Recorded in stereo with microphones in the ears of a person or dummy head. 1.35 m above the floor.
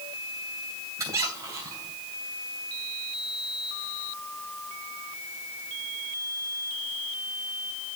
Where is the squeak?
25° right (ahead or behind), 3 m.